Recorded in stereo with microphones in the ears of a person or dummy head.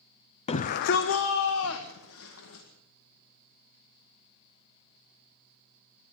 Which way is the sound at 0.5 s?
35° left (ahead or behind).